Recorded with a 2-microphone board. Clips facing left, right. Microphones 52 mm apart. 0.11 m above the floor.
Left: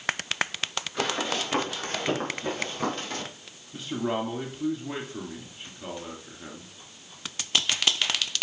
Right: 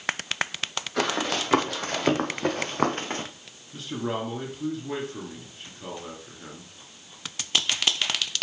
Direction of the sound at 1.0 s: 90° right.